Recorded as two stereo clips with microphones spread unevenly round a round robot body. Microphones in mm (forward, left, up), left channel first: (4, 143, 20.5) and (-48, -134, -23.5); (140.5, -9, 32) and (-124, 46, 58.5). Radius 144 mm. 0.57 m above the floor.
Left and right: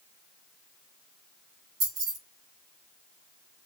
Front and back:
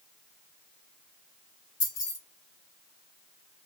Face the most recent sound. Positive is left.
turn(degrees=-70)